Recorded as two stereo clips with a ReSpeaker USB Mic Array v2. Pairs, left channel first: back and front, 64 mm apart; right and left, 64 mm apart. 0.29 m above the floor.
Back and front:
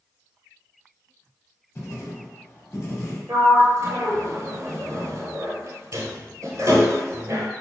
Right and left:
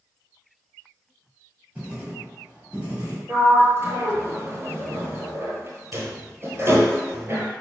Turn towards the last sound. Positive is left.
turn(degrees=35)